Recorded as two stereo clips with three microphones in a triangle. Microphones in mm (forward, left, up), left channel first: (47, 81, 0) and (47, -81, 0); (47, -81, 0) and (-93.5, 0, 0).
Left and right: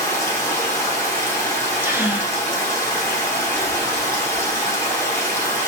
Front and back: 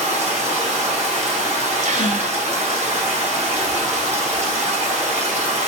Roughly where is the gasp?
Behind.